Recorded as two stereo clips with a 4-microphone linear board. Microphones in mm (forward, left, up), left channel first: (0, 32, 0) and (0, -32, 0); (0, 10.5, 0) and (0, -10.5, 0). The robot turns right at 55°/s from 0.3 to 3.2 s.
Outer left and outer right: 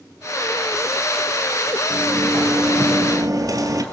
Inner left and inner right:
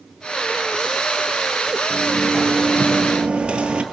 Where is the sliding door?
160° right, 1.9 m; by 3.8 s 90° right, 1.9 m.